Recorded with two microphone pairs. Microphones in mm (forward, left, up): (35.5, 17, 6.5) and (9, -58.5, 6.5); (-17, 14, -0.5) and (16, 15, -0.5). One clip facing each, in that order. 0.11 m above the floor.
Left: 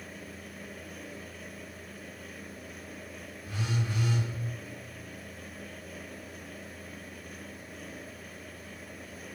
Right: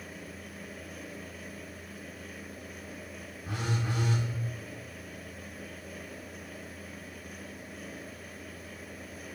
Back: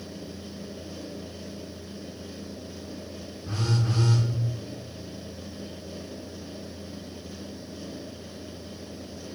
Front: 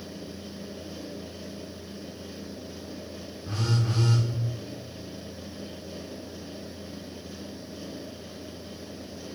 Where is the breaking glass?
I don't hear breaking glass.